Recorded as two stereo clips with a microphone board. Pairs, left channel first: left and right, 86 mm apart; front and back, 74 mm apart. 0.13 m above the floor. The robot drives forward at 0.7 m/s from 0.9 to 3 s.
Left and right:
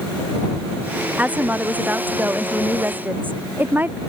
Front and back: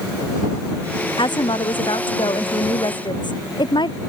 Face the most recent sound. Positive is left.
turn(degrees=-20)